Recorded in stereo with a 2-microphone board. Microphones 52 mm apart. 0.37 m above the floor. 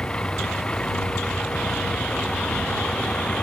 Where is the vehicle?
20° left (ahead or behind).